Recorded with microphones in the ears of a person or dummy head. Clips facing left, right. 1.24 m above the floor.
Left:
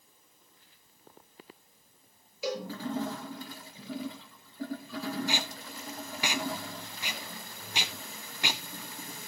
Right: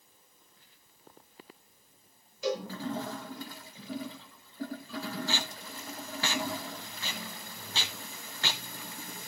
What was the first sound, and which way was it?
A cowbell, 15° left (ahead or behind).